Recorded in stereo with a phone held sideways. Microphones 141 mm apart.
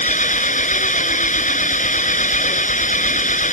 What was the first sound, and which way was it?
An engine running, 65° left (ahead or behind).